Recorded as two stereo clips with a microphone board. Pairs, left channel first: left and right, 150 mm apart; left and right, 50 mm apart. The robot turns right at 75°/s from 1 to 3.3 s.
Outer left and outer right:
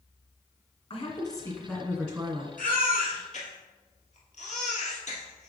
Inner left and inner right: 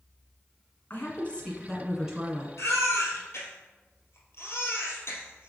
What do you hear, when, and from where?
0.9 s a woman speaking: 110° left, 1.8 m; by 2.5 s 140° right, 1.8 m
2.6 s a baby crying: 65° left (ahead or behind), 2 m; by 5.5 s 55° left (ahead or behind), 2 m